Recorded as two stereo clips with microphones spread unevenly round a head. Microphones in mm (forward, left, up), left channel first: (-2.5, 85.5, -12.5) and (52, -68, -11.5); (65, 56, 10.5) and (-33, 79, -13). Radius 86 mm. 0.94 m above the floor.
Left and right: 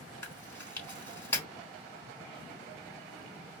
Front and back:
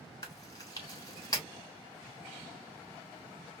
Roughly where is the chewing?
Ahead left.